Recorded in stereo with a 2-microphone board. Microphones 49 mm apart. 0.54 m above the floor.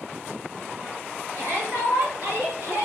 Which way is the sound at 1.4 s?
60° right (ahead or behind).